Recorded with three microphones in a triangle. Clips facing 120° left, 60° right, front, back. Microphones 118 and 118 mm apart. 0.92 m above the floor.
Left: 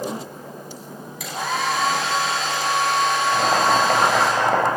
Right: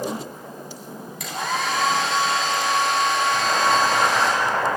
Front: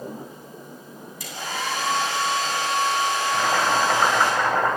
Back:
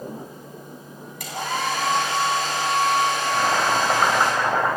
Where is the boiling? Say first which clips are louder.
Left 2 dB, even; 100° left, 5 m.